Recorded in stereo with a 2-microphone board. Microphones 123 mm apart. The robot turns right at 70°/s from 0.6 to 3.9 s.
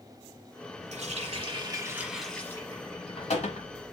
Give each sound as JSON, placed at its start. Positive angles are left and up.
{"t": 0.9, "sound": "a running tap", "azimuth_deg": -90, "distance_m": 1.2}